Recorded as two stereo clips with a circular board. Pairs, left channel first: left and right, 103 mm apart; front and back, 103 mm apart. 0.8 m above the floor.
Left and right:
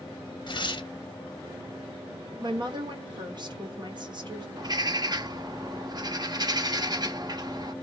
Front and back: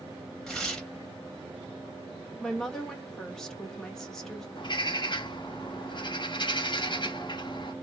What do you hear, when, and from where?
0.5 s tearing paper: 85° left, 1.0 m
2.4 s a woman speaking: 85° right, 1.0 m
4.6 s a bird: 40° right, 0.7 m